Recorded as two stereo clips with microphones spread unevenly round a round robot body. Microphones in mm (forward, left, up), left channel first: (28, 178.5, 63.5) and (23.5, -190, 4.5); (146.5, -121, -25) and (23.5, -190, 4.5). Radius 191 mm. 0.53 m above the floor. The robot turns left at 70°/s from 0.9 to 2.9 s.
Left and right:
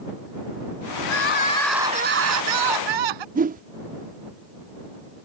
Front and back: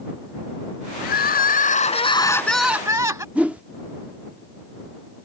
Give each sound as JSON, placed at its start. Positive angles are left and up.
{"t": 1.0, "sound": "crying", "azimuth_deg": 50}
{"t": 3.4, "sound": "a whoosh", "azimuth_deg": -55}